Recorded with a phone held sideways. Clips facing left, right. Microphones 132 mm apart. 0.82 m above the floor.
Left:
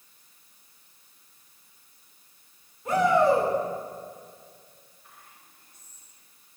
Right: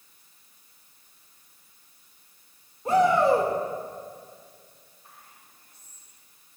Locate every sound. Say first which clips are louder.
2.9 s a shout: right 1 dB; 30° right (ahead or behind), 3 m
5.0 s whispering: right 2 dB; 35° right (ahead or behind), 4 m